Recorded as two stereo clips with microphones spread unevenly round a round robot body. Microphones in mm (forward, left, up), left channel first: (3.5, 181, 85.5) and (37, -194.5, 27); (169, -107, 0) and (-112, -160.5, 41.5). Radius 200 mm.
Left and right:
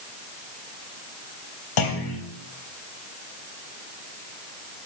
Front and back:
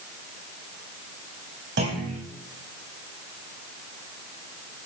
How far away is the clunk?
About 3.5 m.